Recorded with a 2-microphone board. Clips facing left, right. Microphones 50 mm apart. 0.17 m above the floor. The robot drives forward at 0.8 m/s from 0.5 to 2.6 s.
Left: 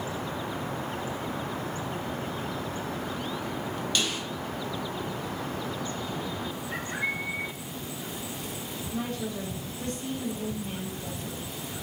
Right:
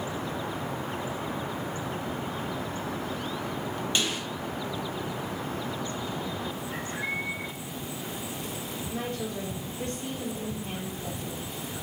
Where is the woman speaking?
40° right (ahead or behind), 4.5 m.